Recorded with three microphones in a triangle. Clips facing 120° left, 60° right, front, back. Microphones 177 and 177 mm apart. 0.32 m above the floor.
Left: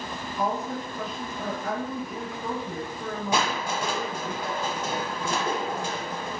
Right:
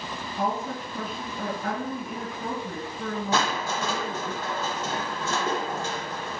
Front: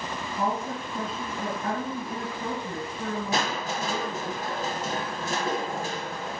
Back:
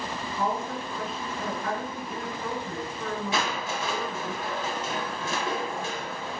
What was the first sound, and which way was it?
A woman speaking, 50° right.